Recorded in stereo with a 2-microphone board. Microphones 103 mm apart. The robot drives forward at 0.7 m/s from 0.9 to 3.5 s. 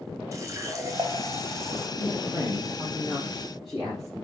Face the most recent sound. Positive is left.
turn(degrees=0)  # may be behind; listen again after turning